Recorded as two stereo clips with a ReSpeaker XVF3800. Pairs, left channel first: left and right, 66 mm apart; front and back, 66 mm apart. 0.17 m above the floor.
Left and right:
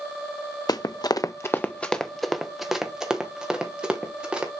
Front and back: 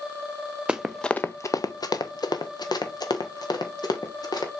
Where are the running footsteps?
105° left, 0.7 m; by 4.5 s 15° right, 3.5 m.